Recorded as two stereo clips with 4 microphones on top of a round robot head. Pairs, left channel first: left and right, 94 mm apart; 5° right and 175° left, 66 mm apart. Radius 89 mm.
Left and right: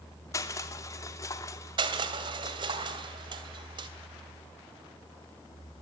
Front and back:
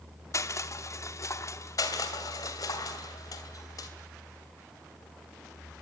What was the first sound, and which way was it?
Crushing, 35° left.